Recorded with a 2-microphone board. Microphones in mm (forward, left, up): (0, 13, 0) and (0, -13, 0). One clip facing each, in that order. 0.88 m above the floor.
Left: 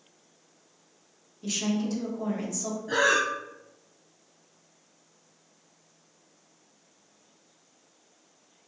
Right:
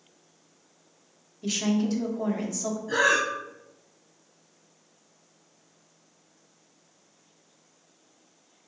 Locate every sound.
1.4 s a woman speaking: 15° right (ahead or behind), 0.7 m
2.9 s breathing: 15° left (ahead or behind), 0.7 m